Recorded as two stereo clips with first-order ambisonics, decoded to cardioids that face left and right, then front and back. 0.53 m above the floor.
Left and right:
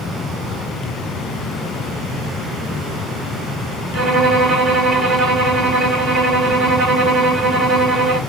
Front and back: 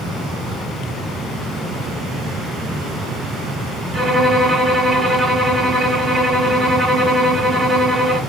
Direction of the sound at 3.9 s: 85° right.